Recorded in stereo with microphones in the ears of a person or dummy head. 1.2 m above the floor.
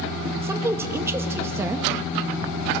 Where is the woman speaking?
10° right (ahead or behind), 1.2 m.